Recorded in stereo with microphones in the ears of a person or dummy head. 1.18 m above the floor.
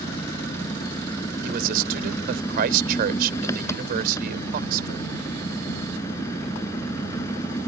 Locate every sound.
0.0 s an engine running: 15° left (ahead or behind)
1.4 s a man speaking: 55° right (ahead or behind)